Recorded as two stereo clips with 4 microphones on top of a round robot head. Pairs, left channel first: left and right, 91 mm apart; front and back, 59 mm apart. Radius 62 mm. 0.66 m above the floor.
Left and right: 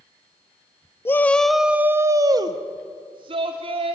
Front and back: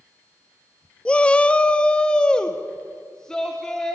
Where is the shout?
55° left, 0.7 m; by 4.0 s 85° right, 1.7 m.